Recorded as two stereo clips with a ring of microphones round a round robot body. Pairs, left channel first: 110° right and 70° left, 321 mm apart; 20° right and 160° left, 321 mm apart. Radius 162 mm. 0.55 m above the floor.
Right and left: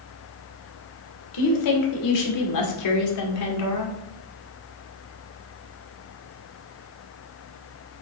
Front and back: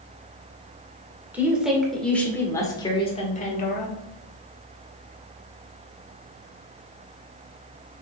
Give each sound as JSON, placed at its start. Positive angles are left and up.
{"t": 1.3, "sound": "a woman speaking", "azimuth_deg": -120, "distance_m": 2.5}